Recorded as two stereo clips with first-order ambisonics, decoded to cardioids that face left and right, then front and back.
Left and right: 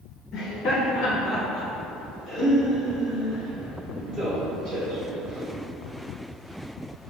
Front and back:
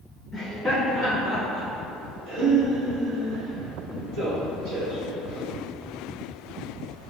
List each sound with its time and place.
0.3 s laughter: 100° left, 1.2 m; by 5.5 s 165° right, 3 m